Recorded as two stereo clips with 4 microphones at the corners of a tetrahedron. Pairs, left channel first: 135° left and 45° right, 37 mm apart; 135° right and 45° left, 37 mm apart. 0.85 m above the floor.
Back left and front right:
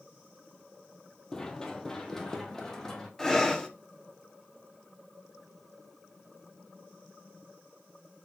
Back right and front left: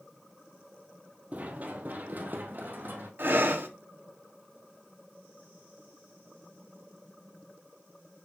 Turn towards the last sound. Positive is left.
turn(degrees=60)